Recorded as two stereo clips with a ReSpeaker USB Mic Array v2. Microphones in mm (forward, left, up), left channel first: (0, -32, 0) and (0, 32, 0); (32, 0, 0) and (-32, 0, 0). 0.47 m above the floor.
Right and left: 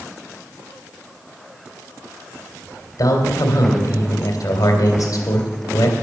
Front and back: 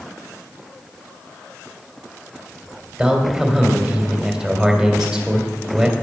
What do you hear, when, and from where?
3.0 s a man speaking: 95° right, 2.5 m